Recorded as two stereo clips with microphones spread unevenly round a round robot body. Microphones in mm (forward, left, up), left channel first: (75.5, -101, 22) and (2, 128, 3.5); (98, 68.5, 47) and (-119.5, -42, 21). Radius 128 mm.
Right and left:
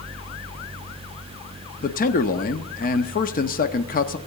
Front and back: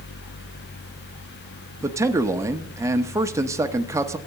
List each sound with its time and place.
1.8 s a man speaking: 95° right, 1.0 m